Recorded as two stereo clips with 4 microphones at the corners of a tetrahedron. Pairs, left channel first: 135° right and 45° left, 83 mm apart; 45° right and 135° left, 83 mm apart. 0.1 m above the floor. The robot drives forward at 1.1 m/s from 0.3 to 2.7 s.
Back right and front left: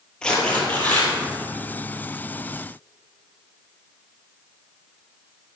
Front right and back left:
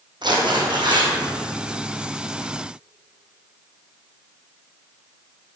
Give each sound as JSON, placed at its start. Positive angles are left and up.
{"t": 0.2, "sound": "tearing paper", "azimuth_deg": 145, "distance_m": 2.0}